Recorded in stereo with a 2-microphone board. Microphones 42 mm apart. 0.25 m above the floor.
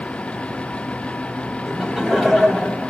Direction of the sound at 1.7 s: 15° right (ahead or behind).